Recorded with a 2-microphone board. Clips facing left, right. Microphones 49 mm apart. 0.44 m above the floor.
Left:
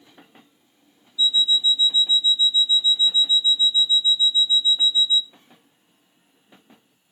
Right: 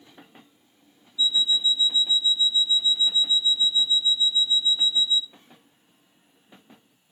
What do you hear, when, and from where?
1.2 s an alarm clock: 30° right (ahead or behind), 0.9 m